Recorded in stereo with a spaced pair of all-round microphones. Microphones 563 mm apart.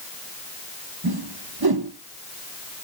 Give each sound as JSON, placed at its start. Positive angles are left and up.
{"t": 1.0, "sound": "a whoosh", "side_deg": -40, "distance_m": 1.1}